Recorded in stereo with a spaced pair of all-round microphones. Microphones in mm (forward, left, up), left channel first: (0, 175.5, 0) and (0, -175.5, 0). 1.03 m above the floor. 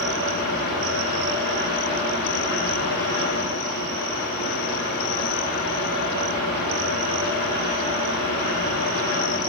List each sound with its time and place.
0.0 s a fan: 80° right, 3.5 m